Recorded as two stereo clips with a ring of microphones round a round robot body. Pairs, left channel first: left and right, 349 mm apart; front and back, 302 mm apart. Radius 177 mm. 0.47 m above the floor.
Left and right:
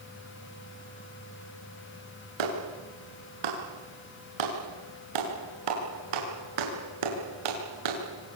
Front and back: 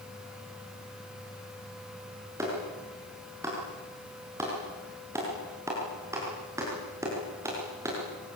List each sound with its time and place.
2.4 s a clap: 100° right, 6.5 m